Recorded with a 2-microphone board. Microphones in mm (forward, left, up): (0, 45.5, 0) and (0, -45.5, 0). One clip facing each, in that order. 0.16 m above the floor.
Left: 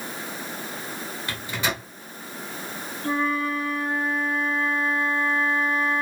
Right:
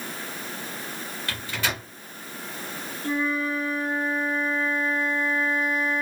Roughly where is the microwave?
Centre.